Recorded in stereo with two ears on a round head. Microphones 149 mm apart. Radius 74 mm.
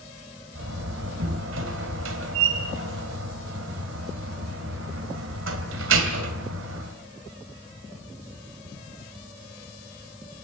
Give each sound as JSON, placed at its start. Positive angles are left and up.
{"t": 0.6, "sound": "a door slam", "side_deg": -85, "distance_m": 3.0}